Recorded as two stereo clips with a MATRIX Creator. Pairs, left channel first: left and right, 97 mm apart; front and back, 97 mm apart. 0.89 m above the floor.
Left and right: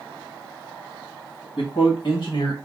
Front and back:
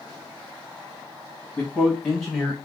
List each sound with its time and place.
1.6 s a man speaking: 85° left, 1.4 m; by 2.6 s 95° left, 0.8 m